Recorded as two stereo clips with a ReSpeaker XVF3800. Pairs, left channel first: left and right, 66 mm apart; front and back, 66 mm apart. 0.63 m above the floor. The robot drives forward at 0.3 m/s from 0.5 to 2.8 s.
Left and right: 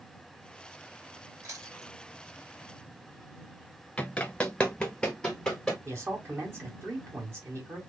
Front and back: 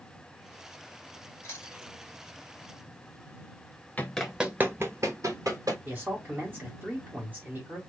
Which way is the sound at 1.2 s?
50° right.